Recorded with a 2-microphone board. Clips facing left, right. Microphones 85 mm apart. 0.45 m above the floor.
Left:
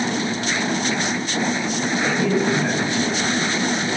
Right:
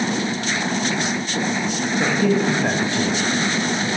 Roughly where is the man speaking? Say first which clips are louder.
Right 2 dB; right.